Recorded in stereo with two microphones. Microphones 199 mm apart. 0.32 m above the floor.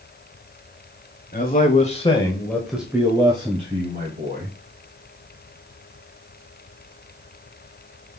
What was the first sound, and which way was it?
A man speaking, 50° left (ahead or behind).